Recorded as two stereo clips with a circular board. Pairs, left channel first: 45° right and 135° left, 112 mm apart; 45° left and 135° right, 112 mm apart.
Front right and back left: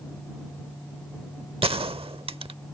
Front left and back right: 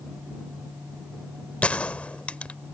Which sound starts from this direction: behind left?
A gunshot, at 1.6 s.